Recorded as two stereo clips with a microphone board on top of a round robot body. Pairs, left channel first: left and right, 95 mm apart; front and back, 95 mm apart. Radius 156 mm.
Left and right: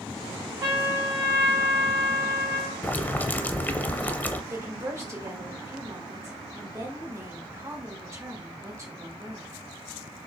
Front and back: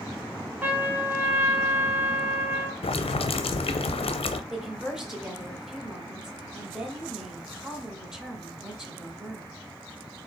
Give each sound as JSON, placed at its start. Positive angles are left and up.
{"t": 0.6, "sound": "a trumpet", "azimuth_deg": -120, "distance_m": 1.2}
{"t": 2.8, "sound": "boiling", "azimuth_deg": 15, "distance_m": 0.5}
{"t": 4.5, "sound": "a woman speaking", "azimuth_deg": -100, "distance_m": 1.6}